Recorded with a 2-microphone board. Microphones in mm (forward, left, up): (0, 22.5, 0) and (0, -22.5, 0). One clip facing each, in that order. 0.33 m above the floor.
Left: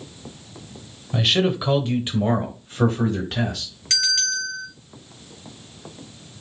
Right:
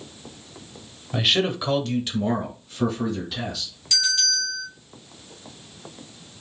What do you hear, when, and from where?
1.1 s a man speaking: 5° right (ahead or behind), 1.0 m; by 3.7 s 60° left (ahead or behind), 1.6 m
3.9 s a bell: 75° left (ahead or behind), 3 m